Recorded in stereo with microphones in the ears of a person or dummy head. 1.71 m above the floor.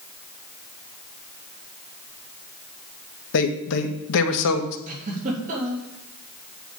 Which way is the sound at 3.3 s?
75° left (ahead or behind).